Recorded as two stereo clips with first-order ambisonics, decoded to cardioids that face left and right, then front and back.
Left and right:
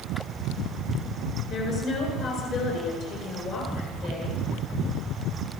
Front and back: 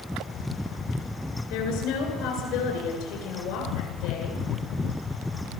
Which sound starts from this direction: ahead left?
A woman speaking, at 1.5 s.